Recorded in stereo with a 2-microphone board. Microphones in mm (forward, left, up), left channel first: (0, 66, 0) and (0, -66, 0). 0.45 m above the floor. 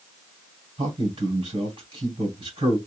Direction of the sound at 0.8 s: 40° right (ahead or behind).